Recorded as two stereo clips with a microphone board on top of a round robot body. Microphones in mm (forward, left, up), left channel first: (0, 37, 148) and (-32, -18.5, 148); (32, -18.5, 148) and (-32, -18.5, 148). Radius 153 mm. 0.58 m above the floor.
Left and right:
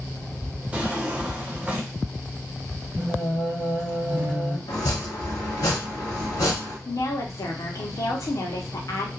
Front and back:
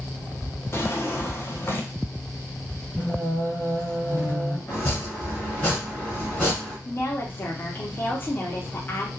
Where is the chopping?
70° left, 0.5 m.